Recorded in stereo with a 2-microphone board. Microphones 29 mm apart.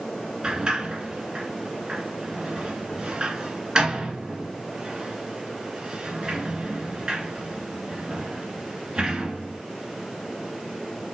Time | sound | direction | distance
0.4 | a sliding door | 30° right (ahead or behind) | 1.7 m